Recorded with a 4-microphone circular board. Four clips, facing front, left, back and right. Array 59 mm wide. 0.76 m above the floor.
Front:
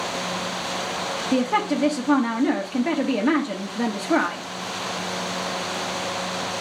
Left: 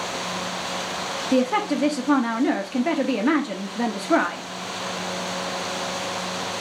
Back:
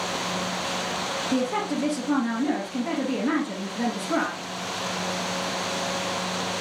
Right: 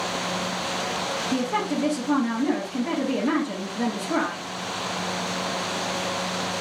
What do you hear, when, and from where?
1.3 s a woman speaking: 60° left, 0.8 m